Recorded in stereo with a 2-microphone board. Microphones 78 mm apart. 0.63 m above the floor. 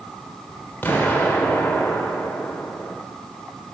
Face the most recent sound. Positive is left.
turn(degrees=25)  # may be behind; listen again after turning